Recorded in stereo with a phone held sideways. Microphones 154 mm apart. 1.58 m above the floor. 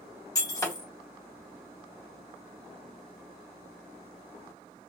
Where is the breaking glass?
25° left (ahead or behind), 1.4 m.